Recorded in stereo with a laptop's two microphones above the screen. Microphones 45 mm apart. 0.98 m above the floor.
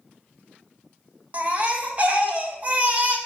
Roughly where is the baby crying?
Right.